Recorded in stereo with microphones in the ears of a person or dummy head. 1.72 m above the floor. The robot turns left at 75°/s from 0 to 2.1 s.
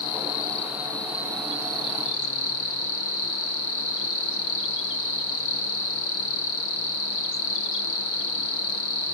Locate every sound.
0.0 s an insect: 115° right, 3 m; by 9.1 s 85° left, 3 m